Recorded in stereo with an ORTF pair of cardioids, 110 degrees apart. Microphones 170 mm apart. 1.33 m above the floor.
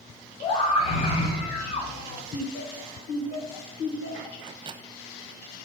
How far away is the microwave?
About 0.7 m.